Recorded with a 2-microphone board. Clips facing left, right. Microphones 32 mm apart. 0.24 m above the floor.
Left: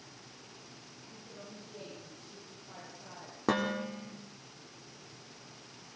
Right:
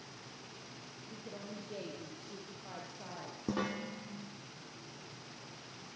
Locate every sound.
1.1 s a woman speaking: 50° right (ahead or behind), 9 m; by 3.4 s 35° right (ahead or behind), 8.5 m
3.5 s dishes clattering: 65° left (ahead or behind), 7 m